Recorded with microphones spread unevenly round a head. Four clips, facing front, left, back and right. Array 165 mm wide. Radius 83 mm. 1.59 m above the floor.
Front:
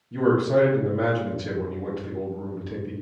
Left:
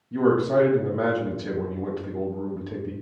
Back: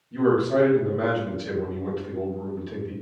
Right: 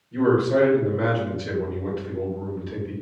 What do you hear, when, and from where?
0.1 s a man speaking: 75° left, 1.1 m